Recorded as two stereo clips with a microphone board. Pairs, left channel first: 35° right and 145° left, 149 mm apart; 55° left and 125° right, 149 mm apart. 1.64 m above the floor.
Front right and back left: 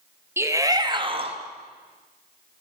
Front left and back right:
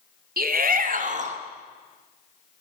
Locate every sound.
0.4 s a shout: 140° right, 3.5 m; by 1.4 s 165° right, 3 m